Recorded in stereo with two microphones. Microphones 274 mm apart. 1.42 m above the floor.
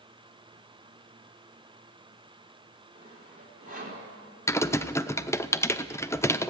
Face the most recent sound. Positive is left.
turn(degrees=10)  # may be behind; listen again after turning